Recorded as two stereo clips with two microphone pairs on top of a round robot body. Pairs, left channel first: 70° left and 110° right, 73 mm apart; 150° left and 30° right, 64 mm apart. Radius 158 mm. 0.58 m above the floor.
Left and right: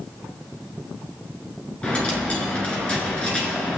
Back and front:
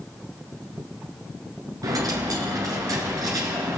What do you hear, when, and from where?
1.8 s a dropped coin: 5° right, 1.3 m